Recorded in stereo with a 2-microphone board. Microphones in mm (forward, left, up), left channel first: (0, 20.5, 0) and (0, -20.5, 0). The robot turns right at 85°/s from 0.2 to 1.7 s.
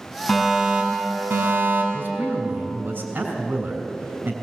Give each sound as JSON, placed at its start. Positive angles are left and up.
{"t": 0.3, "sound": "a fire alarm", "azimuth_deg": 165, "distance_m": 5.5}
{"t": 1.9, "sound": "a man speaking", "side_deg": -65, "distance_m": 3.0}